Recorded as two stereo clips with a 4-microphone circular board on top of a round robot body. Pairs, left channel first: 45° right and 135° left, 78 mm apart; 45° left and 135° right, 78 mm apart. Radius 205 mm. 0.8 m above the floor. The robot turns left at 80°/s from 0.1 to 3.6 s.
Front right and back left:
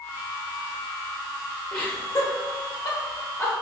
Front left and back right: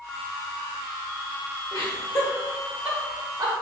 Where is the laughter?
30° left, 0.8 m; by 3.5 s 115° right, 0.8 m.